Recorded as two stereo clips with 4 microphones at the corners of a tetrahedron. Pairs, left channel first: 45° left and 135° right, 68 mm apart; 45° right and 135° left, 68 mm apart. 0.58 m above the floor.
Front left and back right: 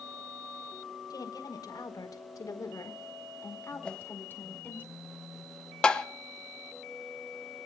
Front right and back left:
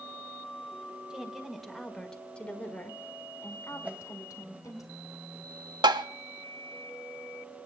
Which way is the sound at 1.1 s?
55° left.